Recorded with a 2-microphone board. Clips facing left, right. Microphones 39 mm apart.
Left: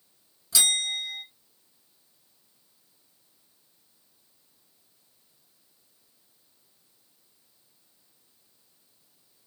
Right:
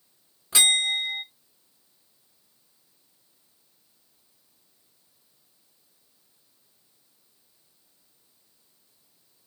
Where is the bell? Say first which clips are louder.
Right 4 dB; 35° right (ahead or behind), 1.0 m.